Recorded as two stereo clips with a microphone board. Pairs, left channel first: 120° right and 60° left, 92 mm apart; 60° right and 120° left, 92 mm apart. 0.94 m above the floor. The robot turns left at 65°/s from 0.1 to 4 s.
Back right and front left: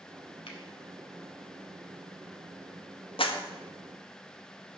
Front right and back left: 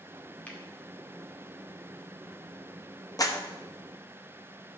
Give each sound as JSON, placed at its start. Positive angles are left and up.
{"t": 0.5, "sound": "a finger snap", "azimuth_deg": -135, "distance_m": 1.9}
{"t": 3.2, "sound": "a clap", "azimuth_deg": -105, "distance_m": 1.0}